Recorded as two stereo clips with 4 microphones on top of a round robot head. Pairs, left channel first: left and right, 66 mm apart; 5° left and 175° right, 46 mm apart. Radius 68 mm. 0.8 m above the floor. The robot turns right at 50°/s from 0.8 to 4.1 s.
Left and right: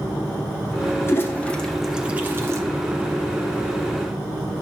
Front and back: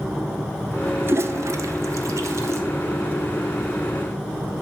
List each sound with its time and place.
1.0 s a toilet flushing: 140° left, 0.8 m; by 2.6 s 140° right, 0.8 m